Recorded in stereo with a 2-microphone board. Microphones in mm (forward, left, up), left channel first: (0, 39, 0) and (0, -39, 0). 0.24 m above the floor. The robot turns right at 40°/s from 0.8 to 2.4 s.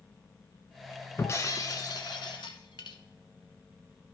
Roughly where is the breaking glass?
Ahead left.